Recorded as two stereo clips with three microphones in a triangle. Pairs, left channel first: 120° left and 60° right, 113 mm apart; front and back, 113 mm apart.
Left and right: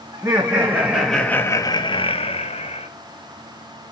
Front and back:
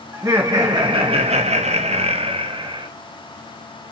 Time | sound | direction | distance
0.1 | laughter | 115° right | 1.8 m